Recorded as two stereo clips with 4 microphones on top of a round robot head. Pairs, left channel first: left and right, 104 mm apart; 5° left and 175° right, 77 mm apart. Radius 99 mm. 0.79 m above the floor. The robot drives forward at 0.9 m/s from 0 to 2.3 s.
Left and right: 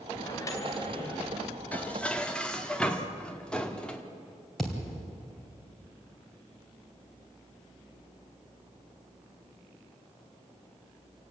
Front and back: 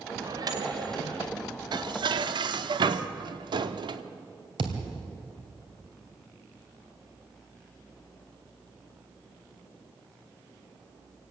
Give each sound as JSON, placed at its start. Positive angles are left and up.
{"t": 0.2, "sound": "a microwave", "azimuth_deg": 150, "distance_m": 2.5}
{"t": 1.7, "sound": "dishes clattering", "azimuth_deg": 165, "distance_m": 0.8}
{"t": 4.6, "sound": "a thud", "azimuth_deg": 180, "distance_m": 2.5}